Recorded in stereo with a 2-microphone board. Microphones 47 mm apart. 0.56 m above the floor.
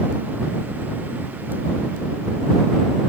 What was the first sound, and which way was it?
Only background noise.